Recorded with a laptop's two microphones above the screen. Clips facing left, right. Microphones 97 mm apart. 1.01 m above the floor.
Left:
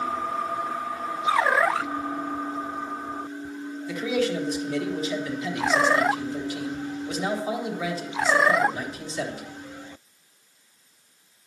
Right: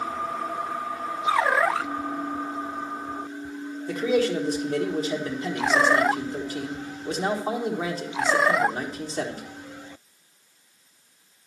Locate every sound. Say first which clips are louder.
3.9 s a man speaking: right 3 dB; 40° right (ahead or behind), 1.2 m